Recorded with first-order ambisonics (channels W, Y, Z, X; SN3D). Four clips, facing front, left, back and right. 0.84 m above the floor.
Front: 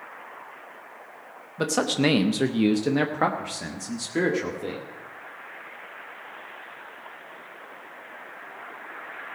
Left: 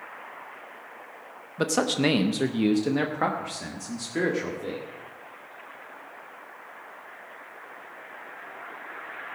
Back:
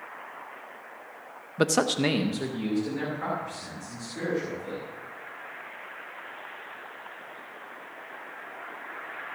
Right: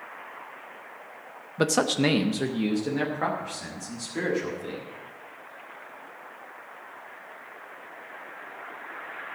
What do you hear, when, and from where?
1.6 s a man speaking: 145° right, 0.5 m; by 4.8 s 20° left, 2 m